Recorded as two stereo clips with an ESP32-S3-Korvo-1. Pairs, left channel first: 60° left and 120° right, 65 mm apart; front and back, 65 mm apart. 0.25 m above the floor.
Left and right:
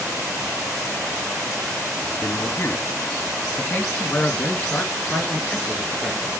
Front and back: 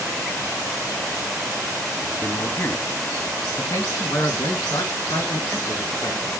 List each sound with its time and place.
2.2 s a man speaking: 45° left, 1.6 m; by 6.3 s 5° right, 3.5 m